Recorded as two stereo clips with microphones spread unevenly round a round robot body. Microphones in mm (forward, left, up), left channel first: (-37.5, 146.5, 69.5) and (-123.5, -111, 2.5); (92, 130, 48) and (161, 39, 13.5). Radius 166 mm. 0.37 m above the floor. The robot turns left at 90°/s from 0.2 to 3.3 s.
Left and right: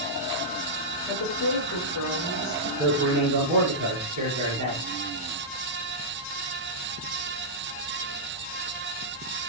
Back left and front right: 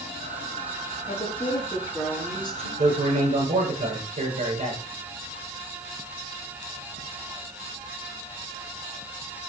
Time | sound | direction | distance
1.1 | a woman speaking | 115° left | 7 m
2.8 | a man speaking | 35° right | 6.5 m